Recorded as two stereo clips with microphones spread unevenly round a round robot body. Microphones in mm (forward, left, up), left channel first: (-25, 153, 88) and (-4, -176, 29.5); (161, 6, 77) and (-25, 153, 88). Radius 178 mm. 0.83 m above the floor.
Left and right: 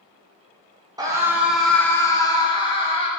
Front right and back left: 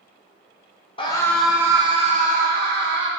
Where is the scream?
55° right, 0.7 m; by 3.1 s 170° left, 1.2 m.